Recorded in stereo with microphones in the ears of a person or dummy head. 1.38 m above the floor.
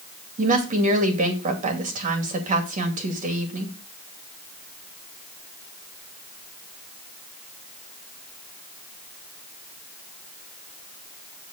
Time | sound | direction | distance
0.4 | a woman speaking | 35° right (ahead or behind) | 2.5 m